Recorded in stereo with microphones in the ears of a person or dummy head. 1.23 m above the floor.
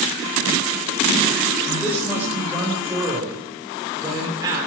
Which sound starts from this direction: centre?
A man speaking, at 1.7 s.